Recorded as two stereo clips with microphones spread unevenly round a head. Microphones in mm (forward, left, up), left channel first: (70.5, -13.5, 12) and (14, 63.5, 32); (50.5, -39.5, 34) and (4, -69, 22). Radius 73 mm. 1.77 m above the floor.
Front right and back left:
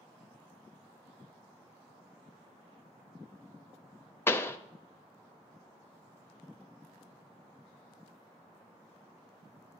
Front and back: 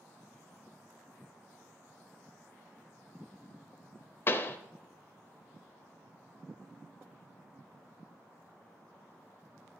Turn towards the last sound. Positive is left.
turn(degrees=20)